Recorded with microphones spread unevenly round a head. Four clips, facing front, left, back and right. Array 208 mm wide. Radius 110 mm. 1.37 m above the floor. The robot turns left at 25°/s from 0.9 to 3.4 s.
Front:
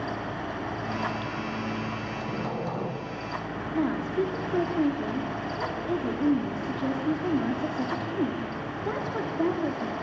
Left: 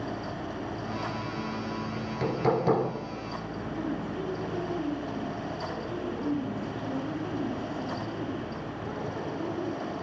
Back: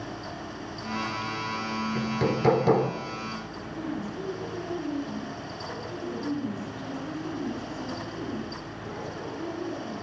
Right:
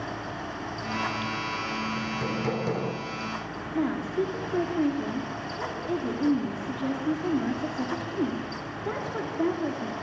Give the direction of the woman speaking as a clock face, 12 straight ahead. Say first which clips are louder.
Right 8 dB, front 8 dB; 1 o'clock.